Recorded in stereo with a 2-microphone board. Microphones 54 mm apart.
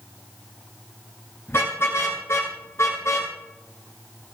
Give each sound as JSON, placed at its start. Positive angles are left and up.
{"t": 1.5, "sound": "a car horn", "side_deg": 50, "distance_m": 10.0}